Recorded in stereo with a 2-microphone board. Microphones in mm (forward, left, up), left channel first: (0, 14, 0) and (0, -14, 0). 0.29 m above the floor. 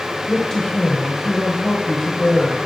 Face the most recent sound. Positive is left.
turn(degrees=20)  # may be behind; listen again after turning